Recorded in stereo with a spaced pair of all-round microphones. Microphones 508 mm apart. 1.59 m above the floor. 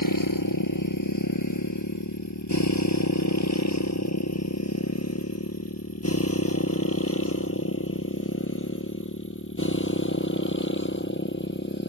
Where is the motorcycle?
40° left (ahead or behind); by 11.9 s 20° left (ahead or behind).